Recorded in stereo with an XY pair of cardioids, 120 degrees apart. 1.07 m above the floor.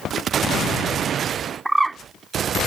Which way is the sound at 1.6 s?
15° right.